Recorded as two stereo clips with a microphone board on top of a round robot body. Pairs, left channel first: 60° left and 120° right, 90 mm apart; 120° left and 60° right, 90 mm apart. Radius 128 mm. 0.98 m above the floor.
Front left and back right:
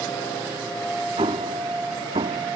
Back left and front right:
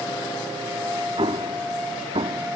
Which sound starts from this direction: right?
An explosion, at 1.2 s.